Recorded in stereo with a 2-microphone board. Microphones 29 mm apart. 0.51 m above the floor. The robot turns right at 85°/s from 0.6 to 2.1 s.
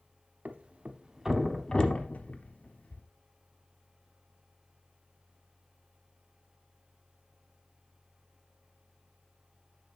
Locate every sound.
0.5 s a thud: 70° right (ahead or behind), 0.8 m; by 3.0 s 55° left (ahead or behind), 0.8 m